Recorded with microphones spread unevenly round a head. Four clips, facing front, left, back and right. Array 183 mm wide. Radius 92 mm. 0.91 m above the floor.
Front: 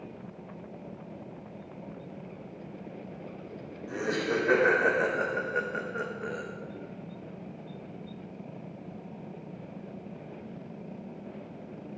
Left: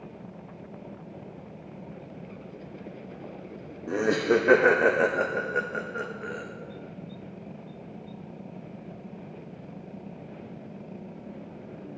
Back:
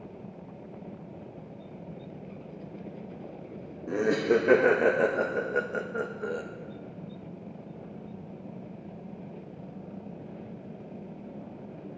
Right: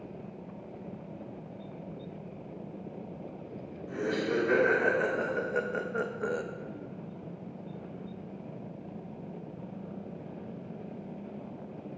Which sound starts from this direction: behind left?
Laughter, at 3.9 s.